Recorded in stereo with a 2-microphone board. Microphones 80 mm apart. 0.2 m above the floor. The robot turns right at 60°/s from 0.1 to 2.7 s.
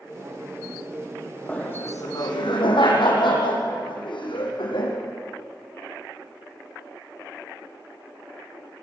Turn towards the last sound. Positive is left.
turn(degrees=90)